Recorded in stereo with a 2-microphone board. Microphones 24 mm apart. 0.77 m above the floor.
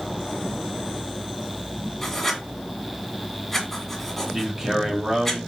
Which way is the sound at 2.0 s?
10° left (ahead or behind).